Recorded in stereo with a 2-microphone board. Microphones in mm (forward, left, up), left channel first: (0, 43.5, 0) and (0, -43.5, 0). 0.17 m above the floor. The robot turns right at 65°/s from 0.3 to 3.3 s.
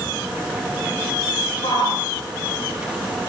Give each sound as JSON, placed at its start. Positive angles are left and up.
{"t": 1.6, "sound": "a shout", "side_deg": 60, "distance_m": 3.5}